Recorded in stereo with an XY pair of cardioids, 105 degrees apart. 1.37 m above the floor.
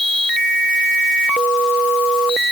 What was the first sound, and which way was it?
Only background noise.